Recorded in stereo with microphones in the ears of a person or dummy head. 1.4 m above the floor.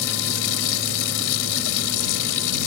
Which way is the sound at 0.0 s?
65° left (ahead or behind).